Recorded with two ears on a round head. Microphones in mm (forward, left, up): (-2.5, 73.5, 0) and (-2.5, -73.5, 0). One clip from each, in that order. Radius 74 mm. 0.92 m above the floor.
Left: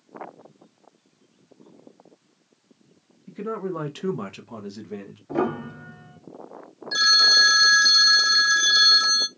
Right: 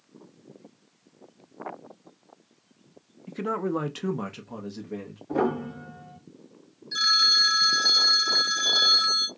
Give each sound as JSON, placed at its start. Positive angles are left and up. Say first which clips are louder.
{"t": 3.3, "sound": "a man speaking", "louder": "right 2 dB", "side_deg": -30, "distance_m": 0.5}
{"t": 5.3, "sound": "a piano", "louder": "even", "side_deg": 40, "distance_m": 2.0}
{"t": 6.9, "sound": "a phone ringing", "louder": "left 4 dB", "side_deg": 30, "distance_m": 0.6}